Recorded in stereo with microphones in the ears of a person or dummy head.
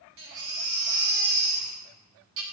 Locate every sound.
0.2 s a baby crying: 55° right (ahead or behind), 0.6 m